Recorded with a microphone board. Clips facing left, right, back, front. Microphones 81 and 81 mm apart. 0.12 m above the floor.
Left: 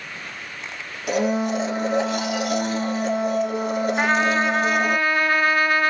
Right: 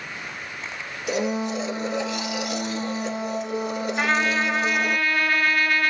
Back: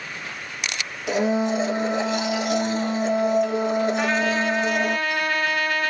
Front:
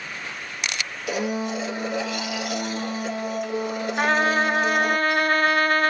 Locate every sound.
1.1 s a blender: 125° left, 1.1 m
4.0 s a trumpet: 25° left, 1.1 m